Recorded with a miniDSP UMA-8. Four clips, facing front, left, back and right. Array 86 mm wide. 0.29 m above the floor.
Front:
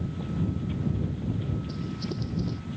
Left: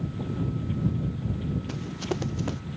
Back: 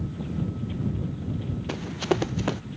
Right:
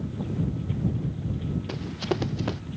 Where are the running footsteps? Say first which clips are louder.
Right 2 dB, back 7 dB; 170° right.